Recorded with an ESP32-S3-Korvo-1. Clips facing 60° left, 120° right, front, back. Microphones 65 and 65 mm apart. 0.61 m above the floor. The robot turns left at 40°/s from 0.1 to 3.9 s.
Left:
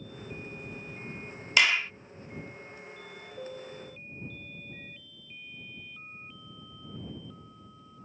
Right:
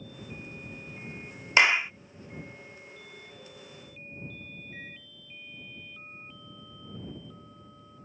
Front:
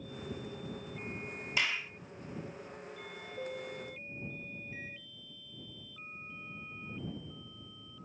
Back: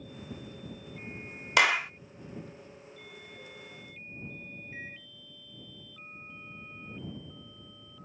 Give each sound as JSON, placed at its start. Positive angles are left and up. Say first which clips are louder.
{"t": 1.6, "sound": "a clap", "louder": "right 3 dB, back 10 dB", "azimuth_deg": 180}
{"t": 3.4, "sound": "a piano", "louder": "left 8 dB, front 7 dB", "azimuth_deg": 25}
{"t": 4.7, "sound": "a microwave", "louder": "right 3 dB, back 2 dB", "azimuth_deg": -120}